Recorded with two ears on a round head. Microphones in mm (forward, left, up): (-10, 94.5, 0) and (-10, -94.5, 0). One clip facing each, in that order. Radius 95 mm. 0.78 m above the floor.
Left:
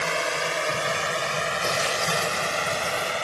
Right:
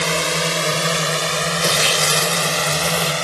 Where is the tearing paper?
70° right (ahead or behind).